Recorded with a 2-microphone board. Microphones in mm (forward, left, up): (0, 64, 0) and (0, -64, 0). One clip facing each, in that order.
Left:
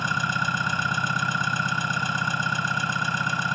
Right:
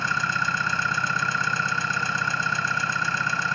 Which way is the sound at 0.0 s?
15° left (ahead or behind).